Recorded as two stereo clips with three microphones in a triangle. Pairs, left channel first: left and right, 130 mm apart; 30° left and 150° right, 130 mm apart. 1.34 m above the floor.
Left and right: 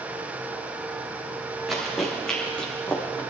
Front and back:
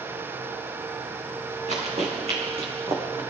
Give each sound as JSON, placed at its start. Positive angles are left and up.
{"t": 1.7, "sound": "running footsteps", "azimuth_deg": 180, "distance_m": 5.0}